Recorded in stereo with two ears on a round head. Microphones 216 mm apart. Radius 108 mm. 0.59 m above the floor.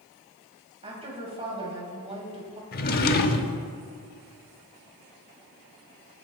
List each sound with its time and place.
0.8 s a woman speaking: 25° right (ahead or behind), 3.5 m
2.7 s a drawer: 40° left (ahead or behind), 0.8 m